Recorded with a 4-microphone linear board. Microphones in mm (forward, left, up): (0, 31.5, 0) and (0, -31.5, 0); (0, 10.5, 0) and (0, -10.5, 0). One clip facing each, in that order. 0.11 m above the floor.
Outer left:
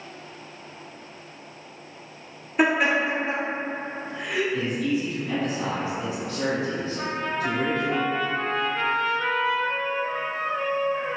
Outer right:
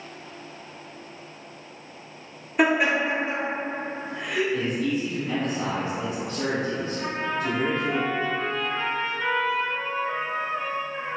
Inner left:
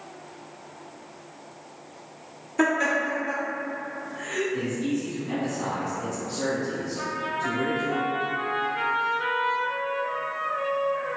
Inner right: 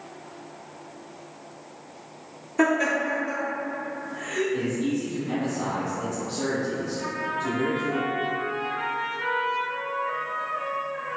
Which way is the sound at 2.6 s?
5° right (ahead or behind).